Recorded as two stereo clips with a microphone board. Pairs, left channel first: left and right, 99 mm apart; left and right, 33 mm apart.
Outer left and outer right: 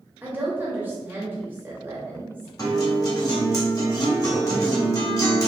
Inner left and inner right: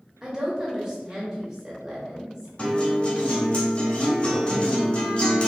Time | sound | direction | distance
0.2 | a woman speaking | 20° right (ahead or behind) | 0.9 m
2.6 | a guitar | 35° left (ahead or behind) | 1.2 m